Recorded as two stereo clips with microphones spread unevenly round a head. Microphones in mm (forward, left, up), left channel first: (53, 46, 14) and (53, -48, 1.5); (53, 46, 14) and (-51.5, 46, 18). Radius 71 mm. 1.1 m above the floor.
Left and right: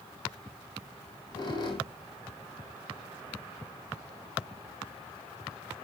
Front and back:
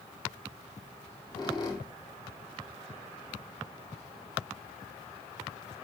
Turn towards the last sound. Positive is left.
turn(degrees=50)